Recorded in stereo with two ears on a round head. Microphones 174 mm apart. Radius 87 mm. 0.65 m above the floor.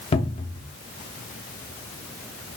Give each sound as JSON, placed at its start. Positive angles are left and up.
{"t": 0.1, "sound": "a cupboard door", "side_deg": 30, "distance_m": 0.6}